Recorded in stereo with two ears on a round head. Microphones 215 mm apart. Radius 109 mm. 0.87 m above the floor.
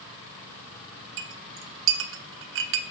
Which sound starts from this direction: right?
A clink, at 1.2 s.